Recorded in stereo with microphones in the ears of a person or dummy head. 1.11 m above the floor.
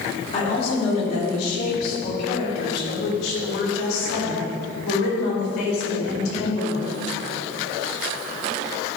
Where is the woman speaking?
35° left (ahead or behind), 3 m; by 6.9 s 85° left, 5 m.